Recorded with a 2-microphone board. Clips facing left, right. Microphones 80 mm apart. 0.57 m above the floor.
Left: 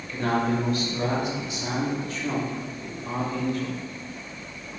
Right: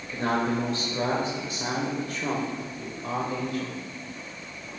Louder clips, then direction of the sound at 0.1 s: Left 1 dB; 20° right (ahead or behind).